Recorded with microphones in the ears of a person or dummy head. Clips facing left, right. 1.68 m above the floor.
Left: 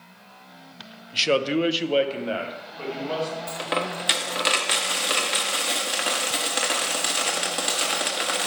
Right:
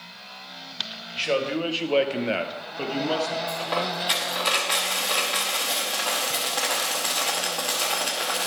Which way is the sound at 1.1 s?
55° left (ahead or behind).